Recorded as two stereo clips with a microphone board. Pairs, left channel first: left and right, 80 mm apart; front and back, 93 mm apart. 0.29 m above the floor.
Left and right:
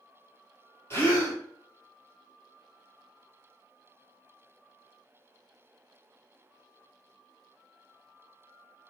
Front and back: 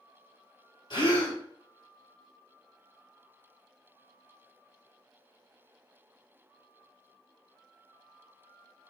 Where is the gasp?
30° left, 1.2 m.